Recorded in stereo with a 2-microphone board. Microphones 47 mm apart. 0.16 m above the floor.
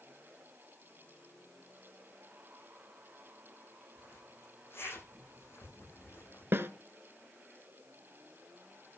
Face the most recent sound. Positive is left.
turn(degrees=-60)  # may be behind; listen again after turning